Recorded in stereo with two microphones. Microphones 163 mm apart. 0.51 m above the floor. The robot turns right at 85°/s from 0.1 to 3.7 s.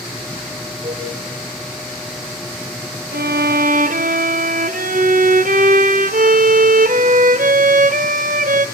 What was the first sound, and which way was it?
A flute, 35° right (ahead or behind).